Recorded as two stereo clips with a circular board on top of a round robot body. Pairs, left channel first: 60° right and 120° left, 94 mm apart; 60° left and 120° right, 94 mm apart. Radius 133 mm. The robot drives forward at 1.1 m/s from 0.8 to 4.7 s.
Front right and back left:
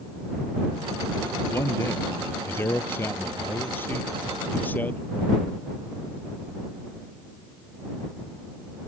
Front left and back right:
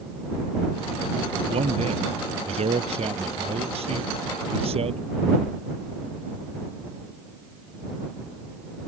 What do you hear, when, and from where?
1.5 s a man speaking: 125° right; by 5.0 s 130° right